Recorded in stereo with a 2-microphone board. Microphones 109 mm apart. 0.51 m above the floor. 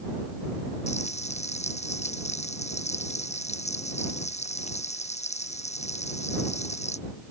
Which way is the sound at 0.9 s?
90° left.